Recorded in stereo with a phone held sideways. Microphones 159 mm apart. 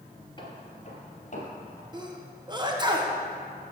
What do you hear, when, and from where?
0.4 s footsteps: 30° left (ahead or behind), 1.6 m; by 1.8 s 60° left (ahead or behind), 2.5 m
1.9 s a sneeze: 30° right (ahead or behind), 1.0 m